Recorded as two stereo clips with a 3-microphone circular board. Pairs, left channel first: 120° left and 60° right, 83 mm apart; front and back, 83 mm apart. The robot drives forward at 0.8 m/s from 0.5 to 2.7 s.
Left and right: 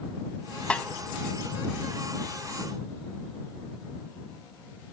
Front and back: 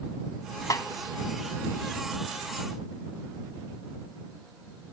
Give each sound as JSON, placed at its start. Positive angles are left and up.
{"t": 0.7, "sound": "a snare drum", "azimuth_deg": 45, "distance_m": 0.8}